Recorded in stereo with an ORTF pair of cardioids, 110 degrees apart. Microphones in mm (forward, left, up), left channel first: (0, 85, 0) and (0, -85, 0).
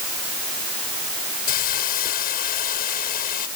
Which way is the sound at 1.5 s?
60° left.